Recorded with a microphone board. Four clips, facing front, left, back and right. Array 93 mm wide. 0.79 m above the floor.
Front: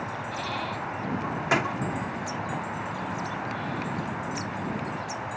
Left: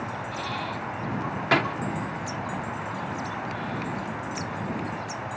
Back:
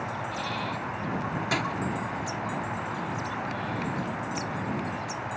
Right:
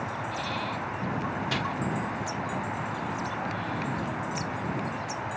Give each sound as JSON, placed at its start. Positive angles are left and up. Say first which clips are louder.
{"t": 1.5, "sound": "a door slam", "louder": "left 12 dB, front 5 dB", "azimuth_deg": 65}